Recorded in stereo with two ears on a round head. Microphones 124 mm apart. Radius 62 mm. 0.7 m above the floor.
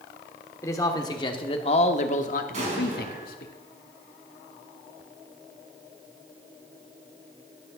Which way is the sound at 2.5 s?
55° right (ahead or behind).